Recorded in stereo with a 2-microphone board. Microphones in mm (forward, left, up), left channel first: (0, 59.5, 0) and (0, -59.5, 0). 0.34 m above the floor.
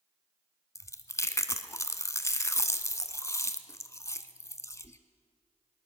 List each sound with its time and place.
0.8 s chewing: 25° left (ahead or behind), 0.6 m